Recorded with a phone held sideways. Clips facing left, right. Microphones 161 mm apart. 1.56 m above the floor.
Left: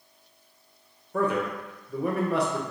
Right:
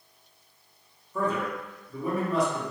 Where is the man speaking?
65° left (ahead or behind), 0.9 m.